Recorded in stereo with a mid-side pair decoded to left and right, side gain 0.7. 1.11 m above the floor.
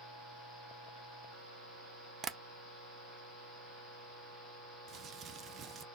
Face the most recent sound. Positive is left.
turn(degrees=-40)